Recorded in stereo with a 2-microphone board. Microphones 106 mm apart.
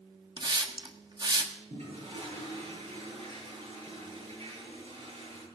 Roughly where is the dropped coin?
I don't hear a dropped coin.